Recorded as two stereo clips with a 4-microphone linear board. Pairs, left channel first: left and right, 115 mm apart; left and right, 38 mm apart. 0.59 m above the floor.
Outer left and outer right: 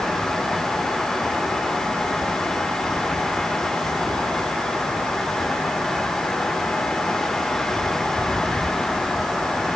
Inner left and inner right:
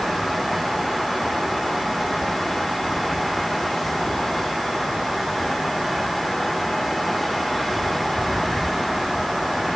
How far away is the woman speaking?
I don't hear a woman speaking.